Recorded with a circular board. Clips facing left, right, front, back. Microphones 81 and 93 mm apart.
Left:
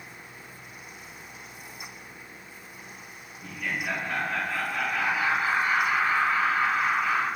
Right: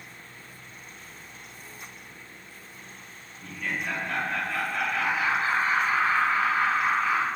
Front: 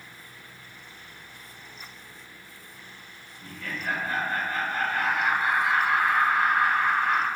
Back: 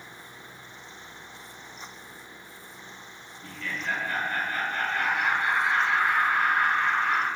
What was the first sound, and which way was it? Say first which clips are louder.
Laughter: even, even; 10° left.